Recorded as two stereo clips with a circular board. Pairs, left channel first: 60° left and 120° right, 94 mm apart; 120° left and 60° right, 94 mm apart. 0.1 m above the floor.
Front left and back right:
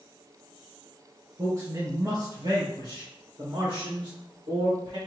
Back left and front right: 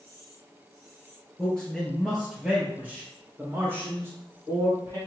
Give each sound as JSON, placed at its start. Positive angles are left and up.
{"t": 1.4, "sound": "a man speaking", "azimuth_deg": -165, "distance_m": 2.0}